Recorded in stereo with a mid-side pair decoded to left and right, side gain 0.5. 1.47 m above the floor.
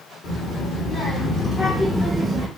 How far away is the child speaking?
About 1.3 m.